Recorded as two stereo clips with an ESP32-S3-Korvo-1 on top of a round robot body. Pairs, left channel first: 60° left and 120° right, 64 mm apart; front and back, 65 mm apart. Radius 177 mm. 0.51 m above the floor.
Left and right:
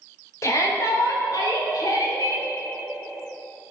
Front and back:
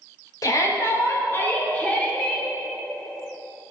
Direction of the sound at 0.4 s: 25° left.